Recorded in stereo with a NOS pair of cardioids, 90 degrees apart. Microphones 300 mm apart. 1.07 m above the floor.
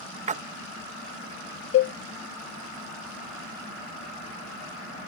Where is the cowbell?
50° left.